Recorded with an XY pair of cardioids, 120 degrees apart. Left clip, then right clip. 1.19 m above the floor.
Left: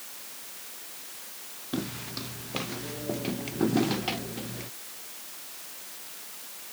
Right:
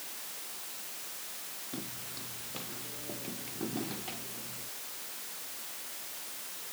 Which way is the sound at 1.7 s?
55° left.